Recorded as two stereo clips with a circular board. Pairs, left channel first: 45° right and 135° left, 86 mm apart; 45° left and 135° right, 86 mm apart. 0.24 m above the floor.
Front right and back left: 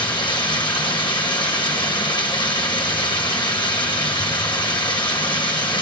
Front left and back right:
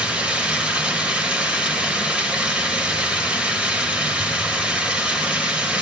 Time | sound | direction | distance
0.0 | running water | 65° right | 1.6 m